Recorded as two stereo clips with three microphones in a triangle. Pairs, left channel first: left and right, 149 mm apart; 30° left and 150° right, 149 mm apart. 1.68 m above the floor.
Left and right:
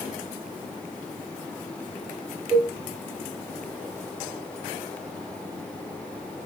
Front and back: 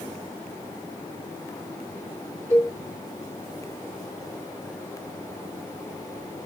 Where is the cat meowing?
No cat meowing in this recording.